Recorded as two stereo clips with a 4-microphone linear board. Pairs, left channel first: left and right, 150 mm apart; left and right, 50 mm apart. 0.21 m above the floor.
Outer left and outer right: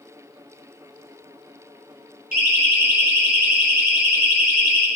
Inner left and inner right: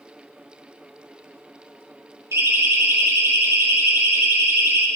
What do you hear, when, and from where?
2.3 s a siren: 75° right (ahead or behind), 6 m